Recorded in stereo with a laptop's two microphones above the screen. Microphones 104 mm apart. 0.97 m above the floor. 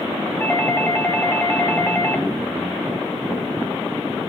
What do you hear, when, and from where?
0.4 s a doorbell: 20° left (ahead or behind), 1.6 m